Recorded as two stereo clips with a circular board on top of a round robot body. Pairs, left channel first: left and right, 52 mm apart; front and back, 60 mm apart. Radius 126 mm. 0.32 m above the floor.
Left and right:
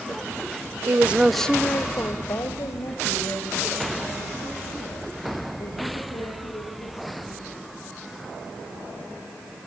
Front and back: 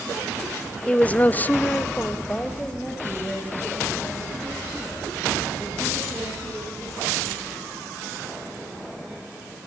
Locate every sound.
0.9 s a woman speaking: 65° right, 1.1 m; by 7.9 s 85° left, 10 m